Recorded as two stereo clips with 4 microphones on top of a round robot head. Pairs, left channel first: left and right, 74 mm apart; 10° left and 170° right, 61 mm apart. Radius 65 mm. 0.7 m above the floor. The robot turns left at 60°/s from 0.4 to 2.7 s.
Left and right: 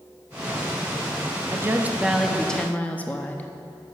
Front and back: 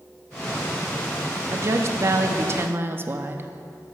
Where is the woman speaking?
135° right, 0.9 m; by 3.5 s 155° left, 0.9 m.